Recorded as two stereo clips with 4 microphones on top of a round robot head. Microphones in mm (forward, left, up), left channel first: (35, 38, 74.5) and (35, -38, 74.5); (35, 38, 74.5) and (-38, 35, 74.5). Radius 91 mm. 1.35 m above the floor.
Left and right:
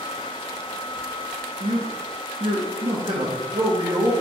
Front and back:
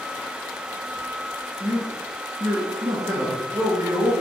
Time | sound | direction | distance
1.6 | a man speaking | 120° right | 1.1 m